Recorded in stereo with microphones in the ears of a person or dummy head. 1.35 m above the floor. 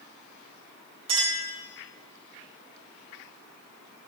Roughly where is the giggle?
I don't hear a giggle.